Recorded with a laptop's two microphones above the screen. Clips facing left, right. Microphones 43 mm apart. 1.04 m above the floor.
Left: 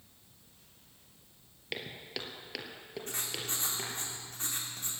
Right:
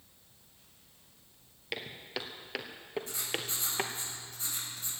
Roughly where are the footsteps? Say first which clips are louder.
Right 1 dB; centre.